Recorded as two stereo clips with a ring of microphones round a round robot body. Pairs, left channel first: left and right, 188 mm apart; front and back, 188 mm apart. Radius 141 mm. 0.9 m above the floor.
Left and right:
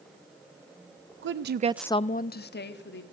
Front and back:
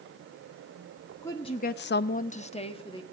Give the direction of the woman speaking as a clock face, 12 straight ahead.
3 o'clock.